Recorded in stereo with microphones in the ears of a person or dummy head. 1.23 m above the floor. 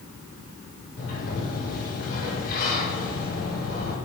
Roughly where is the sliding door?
Left.